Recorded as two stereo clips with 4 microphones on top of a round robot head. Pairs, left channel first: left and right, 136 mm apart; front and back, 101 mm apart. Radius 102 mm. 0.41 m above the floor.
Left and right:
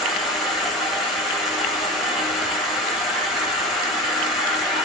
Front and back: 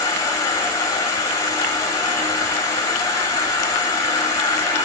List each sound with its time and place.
0.0 s an insect: straight ahead, 1.3 m